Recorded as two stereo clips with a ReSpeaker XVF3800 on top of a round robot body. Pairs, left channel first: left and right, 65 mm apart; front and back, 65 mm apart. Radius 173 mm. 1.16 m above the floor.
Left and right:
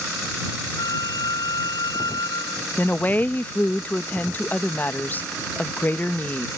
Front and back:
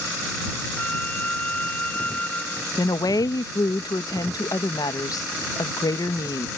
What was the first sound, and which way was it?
A flute, 70° left.